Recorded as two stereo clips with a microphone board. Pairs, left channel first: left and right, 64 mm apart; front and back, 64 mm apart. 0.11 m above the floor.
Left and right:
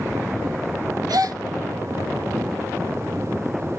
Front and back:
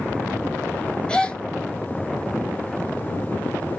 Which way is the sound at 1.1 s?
75° right.